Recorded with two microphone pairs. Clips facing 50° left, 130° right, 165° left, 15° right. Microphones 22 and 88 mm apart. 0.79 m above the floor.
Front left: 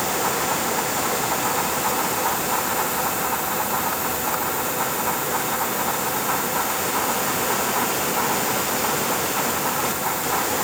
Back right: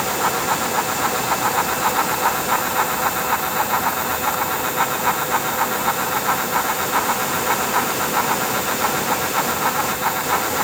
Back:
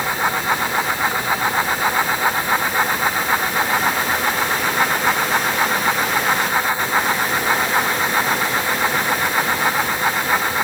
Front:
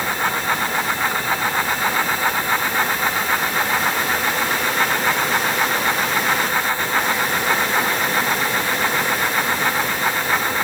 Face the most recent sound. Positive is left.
No sound to turn to.